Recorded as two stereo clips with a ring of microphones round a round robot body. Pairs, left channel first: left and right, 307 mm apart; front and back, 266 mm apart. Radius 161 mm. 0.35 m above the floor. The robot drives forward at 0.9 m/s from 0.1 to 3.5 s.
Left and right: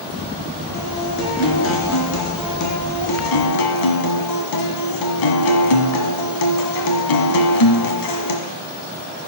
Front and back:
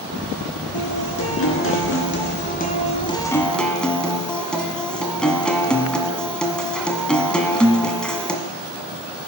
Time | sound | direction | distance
0.7 | a guitar | 30° left | 3 m